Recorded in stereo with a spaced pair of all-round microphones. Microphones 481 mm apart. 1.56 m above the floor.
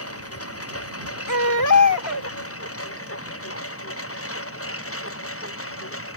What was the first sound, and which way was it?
A lawn mower, 30° left (ahead or behind).